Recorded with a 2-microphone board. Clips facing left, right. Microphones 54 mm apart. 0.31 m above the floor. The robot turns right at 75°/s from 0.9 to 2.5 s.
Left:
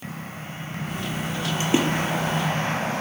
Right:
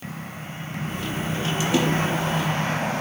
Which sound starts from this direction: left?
A splash, at 1.6 s.